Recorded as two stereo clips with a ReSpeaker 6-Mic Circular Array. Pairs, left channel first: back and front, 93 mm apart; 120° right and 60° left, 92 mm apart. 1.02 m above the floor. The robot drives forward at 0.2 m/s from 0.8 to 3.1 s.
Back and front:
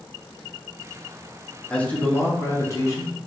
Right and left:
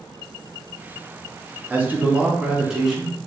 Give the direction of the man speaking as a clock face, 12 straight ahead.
8 o'clock.